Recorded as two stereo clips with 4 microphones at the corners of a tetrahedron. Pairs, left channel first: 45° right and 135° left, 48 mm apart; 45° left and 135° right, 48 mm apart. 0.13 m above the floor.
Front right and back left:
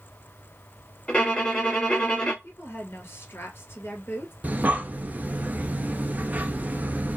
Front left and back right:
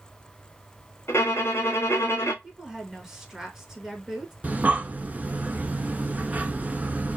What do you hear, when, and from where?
1.1 s a violin: 15° left, 1.5 m
2.4 s a woman speaking: 60° right, 1.9 m
4.4 s breathing: straight behind, 0.7 m